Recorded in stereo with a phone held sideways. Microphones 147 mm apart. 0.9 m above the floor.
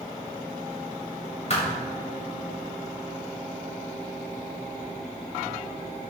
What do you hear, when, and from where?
1.5 s a thud: 50° left (ahead or behind), 2.0 m